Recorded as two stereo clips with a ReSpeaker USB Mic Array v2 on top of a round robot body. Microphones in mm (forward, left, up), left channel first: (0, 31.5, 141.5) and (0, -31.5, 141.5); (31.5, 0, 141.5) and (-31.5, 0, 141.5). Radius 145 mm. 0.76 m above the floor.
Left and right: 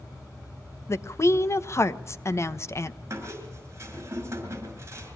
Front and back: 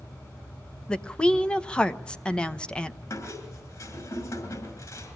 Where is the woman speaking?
70° left, 1.4 m.